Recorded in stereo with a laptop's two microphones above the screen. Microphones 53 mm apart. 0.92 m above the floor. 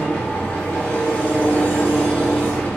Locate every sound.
0.0 s an engine running: 25° left (ahead or behind), 1.9 m